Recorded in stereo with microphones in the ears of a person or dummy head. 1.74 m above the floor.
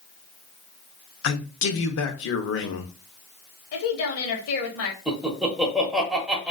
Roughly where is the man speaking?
Left.